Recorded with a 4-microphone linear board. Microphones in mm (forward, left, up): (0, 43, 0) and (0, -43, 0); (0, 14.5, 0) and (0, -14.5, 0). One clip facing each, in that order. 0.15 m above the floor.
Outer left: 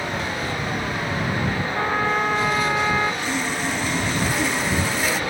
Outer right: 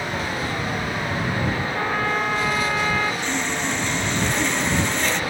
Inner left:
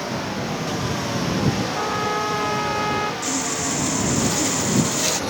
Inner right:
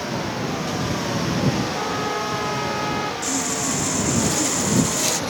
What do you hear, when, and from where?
1.8 s a trumpet: 15° left (ahead or behind)
3.2 s sawing: 5° left (ahead or behind)